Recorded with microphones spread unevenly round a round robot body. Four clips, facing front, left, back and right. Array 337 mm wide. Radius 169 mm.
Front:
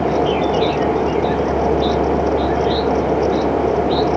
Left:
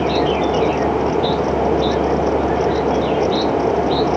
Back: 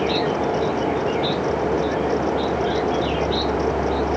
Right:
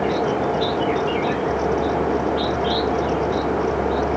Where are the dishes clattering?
I don't hear dishes clattering.